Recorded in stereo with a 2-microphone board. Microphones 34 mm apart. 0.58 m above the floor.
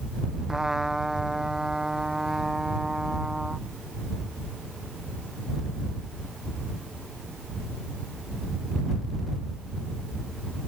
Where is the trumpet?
15° right (ahead or behind).